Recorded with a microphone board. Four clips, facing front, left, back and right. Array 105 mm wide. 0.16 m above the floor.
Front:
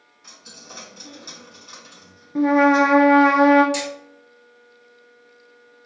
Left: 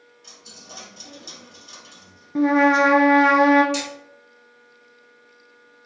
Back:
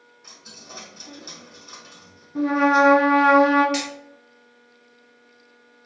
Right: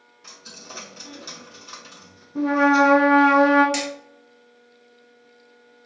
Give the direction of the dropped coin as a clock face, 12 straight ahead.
3 o'clock.